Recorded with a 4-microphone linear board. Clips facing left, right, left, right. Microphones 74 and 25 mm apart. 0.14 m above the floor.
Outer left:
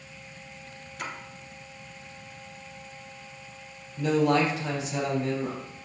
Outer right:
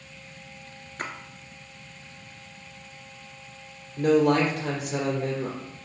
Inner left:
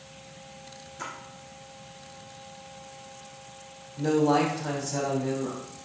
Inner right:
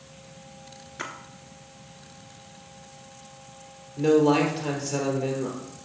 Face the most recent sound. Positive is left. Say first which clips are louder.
# outer right 3 dB, inner right 3 dB
turn(degrees=-50)  # may be behind; listen again after turning